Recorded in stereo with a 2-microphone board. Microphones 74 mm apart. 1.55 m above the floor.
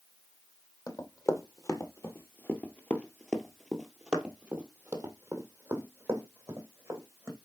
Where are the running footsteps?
50° left (ahead or behind), 2.5 m; by 7.3 s 40° right (ahead or behind), 4 m.